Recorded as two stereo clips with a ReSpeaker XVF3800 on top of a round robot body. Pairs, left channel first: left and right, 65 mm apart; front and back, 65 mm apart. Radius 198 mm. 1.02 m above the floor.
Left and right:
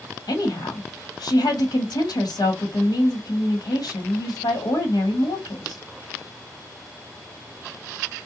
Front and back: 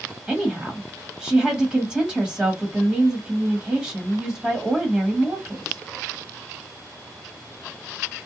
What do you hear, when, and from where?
0.3 s a woman speaking: 95° left, 1.1 m